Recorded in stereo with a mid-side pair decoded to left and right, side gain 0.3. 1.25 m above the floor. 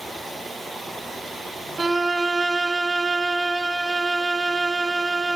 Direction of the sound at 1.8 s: 40° right.